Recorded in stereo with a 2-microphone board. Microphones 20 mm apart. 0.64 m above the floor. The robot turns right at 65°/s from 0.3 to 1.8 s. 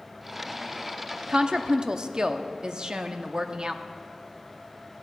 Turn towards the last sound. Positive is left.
turn(degrees=-60)